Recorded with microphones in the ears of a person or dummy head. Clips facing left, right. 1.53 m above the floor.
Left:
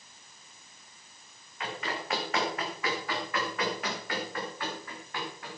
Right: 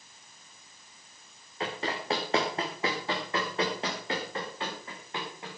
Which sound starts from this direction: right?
Running footsteps, at 1.6 s.